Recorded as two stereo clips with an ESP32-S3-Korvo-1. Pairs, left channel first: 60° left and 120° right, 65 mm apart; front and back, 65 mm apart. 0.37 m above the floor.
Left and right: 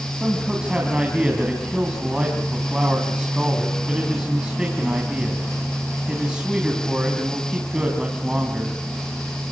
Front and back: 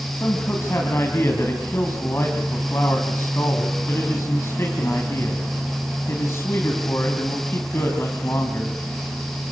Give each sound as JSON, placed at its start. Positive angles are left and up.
{"t": 0.1, "sound": "a man speaking", "azimuth_deg": -45, "distance_m": 3.0}